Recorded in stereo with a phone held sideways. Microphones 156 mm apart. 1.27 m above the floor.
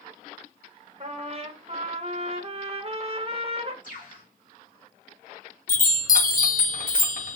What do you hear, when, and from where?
1.0 s a trumpet: 40° right (ahead or behind), 0.6 m
3.8 s a bird: 55° left (ahead or behind), 1.2 m
5.7 s a chime: 60° left (ahead or behind), 0.6 m